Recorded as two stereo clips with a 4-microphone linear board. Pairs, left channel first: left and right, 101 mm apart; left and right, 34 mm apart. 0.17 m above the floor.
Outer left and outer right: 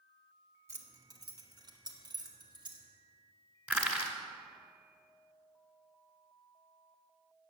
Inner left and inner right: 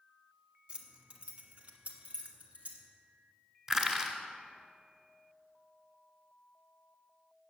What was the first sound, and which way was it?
Keys jangling, 30° right (ahead or behind).